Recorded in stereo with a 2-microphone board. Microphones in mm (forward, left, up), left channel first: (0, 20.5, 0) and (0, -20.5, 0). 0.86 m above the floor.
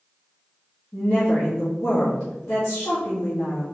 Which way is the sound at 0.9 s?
50° left (ahead or behind).